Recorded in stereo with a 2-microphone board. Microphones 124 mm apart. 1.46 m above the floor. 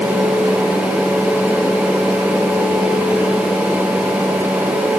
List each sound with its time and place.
Only background noise.